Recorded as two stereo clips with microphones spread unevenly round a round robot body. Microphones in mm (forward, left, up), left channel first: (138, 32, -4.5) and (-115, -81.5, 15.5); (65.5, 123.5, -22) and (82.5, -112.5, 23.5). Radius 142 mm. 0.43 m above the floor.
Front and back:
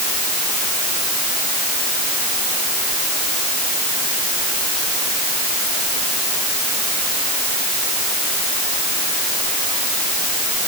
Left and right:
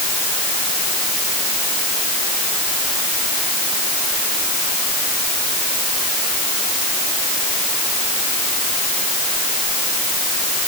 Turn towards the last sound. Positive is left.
No sound to turn to.